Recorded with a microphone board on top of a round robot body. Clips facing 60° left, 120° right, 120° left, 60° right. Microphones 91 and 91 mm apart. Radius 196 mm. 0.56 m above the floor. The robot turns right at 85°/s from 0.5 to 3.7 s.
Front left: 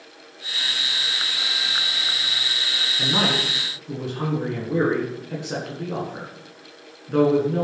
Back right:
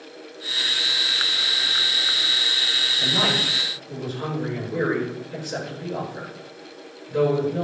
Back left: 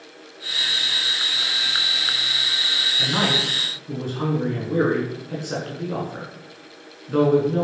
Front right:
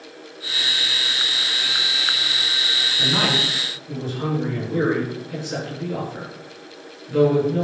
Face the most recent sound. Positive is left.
turn(degrees=85)